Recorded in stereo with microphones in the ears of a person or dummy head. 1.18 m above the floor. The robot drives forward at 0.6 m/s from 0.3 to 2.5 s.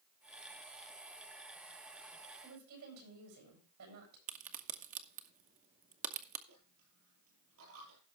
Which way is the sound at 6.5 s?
85° right.